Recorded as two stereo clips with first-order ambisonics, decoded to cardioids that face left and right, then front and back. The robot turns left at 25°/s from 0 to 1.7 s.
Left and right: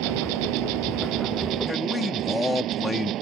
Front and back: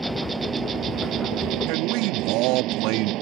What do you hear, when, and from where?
0.0 s an insect: 95° right; by 3.2 s 140° right
1.7 s a man speaking: 175° left; by 3.1 s 170° left